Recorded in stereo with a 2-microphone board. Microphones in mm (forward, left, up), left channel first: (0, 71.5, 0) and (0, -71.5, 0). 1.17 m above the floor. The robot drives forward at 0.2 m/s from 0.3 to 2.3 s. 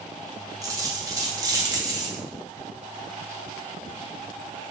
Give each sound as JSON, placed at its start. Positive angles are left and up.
{"t": 0.6, "sound": "a dropped coin", "side_deg": -25, "distance_m": 0.6}